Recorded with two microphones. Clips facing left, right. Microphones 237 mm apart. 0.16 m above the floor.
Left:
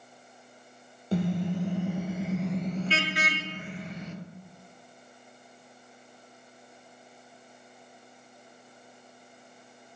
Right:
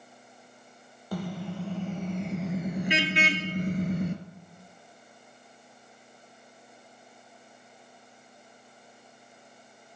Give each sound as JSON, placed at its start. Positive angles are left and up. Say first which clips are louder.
{"t": 1.1, "sound": "a car horn", "louder": "left 6 dB", "side_deg": 25, "distance_m": 2.5}